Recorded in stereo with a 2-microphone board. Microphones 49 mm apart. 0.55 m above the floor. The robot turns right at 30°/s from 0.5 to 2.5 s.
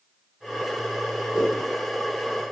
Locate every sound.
1.3 s a whoosh: 20° right (ahead or behind), 1.3 m; by 1.6 s 15° right (ahead or behind), 1.3 m